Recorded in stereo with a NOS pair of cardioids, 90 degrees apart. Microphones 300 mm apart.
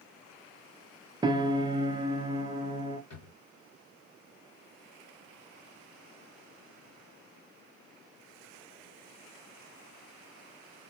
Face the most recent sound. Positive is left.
turn(degrees=60)